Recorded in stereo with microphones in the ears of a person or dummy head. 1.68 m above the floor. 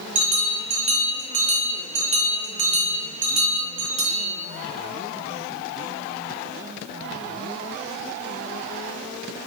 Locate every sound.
0.1 s a bell: 30° right (ahead or behind), 0.5 m